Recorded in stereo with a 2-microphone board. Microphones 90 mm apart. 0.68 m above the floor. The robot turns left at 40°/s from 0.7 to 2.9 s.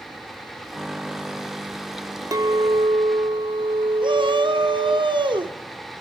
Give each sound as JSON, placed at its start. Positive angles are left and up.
{"t": 2.3, "sound": "a clink", "side_deg": -40, "distance_m": 0.5}
{"t": 4.0, "sound": "a shout", "side_deg": -65, "distance_m": 1.5}